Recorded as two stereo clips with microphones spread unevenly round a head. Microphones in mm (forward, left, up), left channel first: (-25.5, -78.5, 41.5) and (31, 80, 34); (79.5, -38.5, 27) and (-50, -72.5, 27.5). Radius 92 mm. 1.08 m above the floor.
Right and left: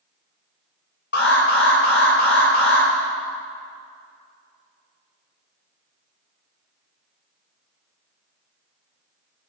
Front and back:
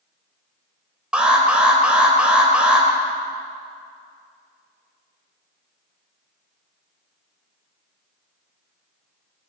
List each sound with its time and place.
1.1 s an alarm: 85° right, 3 m